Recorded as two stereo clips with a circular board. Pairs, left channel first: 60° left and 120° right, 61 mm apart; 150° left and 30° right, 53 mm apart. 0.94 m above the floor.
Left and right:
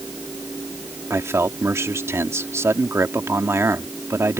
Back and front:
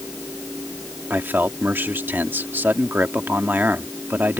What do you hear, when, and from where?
1.1 s a man speaking: 80° right